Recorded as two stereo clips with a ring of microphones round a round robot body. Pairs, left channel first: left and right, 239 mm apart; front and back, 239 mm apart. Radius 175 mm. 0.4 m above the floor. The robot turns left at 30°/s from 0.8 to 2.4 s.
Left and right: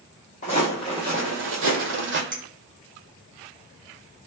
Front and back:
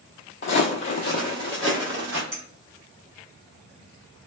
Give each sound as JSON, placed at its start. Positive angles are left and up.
{"t": 0.4, "sound": "footsteps", "azimuth_deg": 30, "distance_m": 0.6}
{"t": 2.3, "sound": "a clink", "azimuth_deg": -145, "distance_m": 1.3}